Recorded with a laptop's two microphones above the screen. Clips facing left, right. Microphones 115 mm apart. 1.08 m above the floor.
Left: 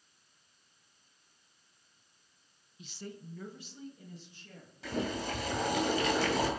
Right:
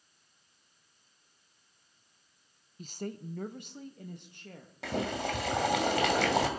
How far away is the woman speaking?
About 0.6 m.